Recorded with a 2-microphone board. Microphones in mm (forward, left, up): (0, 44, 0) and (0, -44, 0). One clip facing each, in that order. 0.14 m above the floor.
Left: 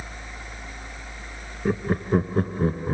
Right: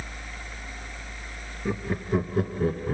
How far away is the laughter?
About 1.6 m.